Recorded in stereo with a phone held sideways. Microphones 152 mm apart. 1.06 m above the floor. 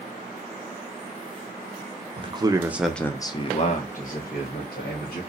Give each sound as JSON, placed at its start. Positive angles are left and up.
{"t": 2.2, "sound": "a man speaking", "side_deg": -35, "distance_m": 0.7}